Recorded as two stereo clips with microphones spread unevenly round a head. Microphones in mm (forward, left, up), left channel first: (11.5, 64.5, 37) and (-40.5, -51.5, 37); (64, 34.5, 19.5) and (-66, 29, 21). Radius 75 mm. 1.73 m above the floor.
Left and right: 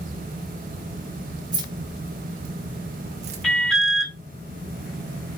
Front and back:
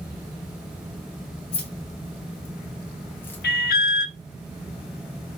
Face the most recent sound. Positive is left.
turn(degrees=-20)